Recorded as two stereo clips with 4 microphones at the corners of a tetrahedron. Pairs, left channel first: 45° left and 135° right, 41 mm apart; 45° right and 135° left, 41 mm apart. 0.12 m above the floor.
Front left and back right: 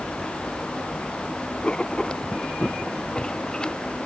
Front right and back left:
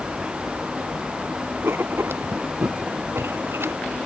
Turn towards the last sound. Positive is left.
turn(degrees=115)